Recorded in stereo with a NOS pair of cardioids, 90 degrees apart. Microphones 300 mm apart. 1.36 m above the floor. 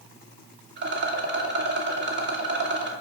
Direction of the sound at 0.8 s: 40° right.